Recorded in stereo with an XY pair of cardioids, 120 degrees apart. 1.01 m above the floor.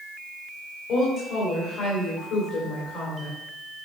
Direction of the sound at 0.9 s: 65° left.